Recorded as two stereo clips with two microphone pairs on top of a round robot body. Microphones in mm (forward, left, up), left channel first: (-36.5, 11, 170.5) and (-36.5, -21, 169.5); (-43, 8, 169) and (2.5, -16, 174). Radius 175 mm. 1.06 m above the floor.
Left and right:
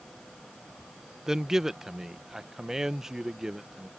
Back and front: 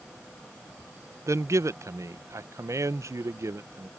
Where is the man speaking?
15° right.